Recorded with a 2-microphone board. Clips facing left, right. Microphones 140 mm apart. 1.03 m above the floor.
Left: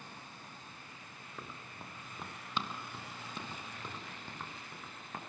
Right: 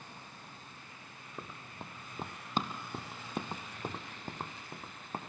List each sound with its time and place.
1.4 s running footsteps: 15° right (ahead or behind), 2.5 m; by 5.2 s 35° right (ahead or behind), 3.5 m